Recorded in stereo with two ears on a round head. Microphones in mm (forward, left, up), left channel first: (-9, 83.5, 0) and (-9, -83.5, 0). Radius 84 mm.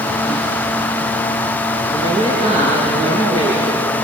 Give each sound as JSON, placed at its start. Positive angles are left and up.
{"t": 1.9, "sound": "a woman speaking", "side_deg": -40, "distance_m": 7.0}